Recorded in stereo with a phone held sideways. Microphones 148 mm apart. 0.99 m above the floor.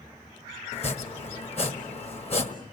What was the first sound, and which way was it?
Chopping, 45° left (ahead or behind).